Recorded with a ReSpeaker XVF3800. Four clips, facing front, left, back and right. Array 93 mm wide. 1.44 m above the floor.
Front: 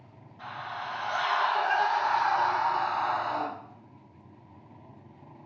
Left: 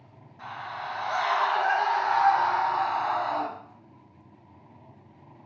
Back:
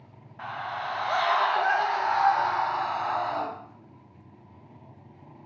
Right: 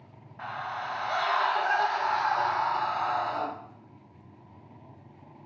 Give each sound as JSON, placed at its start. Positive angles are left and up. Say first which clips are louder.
{"t": 0.4, "sound": "a scream", "louder": "right 2 dB, back 4 dB", "azimuth_deg": -145, "distance_m": 0.8}